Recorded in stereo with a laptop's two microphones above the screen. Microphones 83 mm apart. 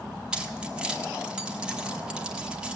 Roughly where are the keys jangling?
Centre.